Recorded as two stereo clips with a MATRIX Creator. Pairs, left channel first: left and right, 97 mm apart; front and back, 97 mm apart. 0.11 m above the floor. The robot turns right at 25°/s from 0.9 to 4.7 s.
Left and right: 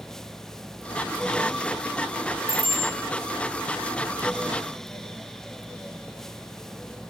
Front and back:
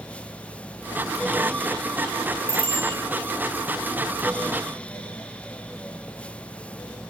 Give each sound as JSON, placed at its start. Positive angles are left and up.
{"t": 2.5, "sound": "a bicycle bell", "azimuth_deg": 115, "distance_m": 9.0}